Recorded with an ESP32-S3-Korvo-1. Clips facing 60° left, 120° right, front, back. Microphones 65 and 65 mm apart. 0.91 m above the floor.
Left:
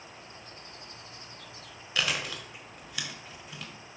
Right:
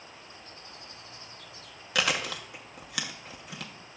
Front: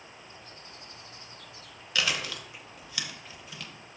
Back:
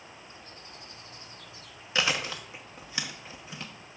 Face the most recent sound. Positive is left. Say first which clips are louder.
# right 3 dB, back 2 dB
turn(degrees=-115)